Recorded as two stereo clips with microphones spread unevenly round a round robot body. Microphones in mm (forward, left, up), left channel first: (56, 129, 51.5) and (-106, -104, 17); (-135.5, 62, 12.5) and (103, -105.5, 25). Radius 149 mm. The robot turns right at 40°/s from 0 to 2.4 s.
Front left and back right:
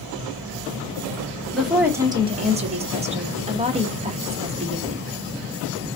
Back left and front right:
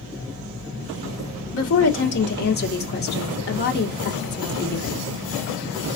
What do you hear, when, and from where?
1.5 s a woman speaking: 150° left, 1.4 m; by 5.1 s 175° right, 1.4 m